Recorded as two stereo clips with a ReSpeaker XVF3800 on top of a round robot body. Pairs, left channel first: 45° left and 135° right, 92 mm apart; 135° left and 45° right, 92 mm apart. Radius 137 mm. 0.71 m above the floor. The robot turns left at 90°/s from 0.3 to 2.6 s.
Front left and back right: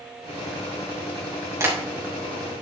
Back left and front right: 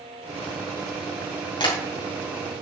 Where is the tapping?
165° left, 3 m; by 1.8 s 150° left, 3 m.